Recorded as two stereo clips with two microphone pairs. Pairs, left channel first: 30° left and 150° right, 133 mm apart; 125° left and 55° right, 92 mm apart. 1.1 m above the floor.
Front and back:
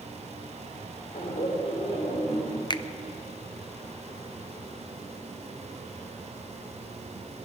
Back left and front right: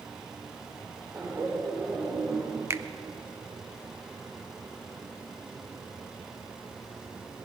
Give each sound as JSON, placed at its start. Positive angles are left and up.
{"t": 1.1, "sound": "laughter", "azimuth_deg": 0, "distance_m": 5.0}
{"t": 2.7, "sound": "a finger snap", "azimuth_deg": -5, "distance_m": 0.5}